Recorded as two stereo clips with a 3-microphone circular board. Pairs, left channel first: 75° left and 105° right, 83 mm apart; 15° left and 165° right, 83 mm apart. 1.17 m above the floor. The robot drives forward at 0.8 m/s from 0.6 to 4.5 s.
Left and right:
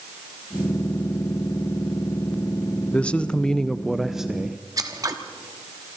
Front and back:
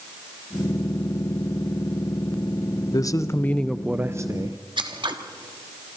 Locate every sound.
2.9 s a man speaking: 5° left, 0.8 m; by 4.6 s 175° left, 0.8 m
4.8 s scissors: 145° right, 1.4 m